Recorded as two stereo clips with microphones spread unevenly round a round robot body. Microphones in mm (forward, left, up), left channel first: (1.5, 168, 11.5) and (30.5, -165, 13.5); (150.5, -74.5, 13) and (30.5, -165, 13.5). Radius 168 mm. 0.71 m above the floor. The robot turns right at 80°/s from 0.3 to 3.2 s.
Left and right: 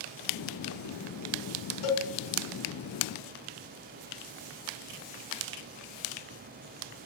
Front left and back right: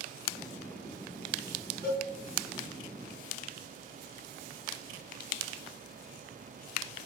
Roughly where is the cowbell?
Behind left.